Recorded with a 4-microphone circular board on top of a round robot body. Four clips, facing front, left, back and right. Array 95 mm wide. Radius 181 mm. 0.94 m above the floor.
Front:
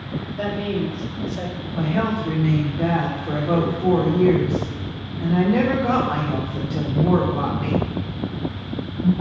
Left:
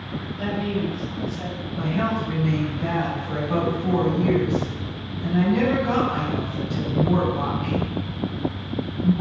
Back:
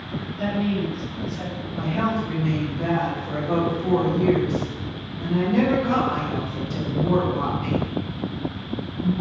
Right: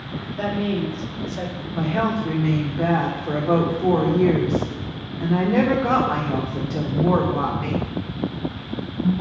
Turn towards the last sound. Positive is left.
turn(degrees=-65)